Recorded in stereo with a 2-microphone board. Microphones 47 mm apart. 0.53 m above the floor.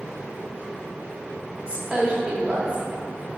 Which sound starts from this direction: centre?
A woman speaking, at 1.7 s.